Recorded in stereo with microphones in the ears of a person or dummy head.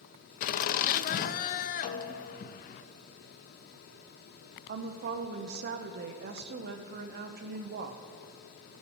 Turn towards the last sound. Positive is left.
turn(degrees=-50)  # may be behind; listen again after turning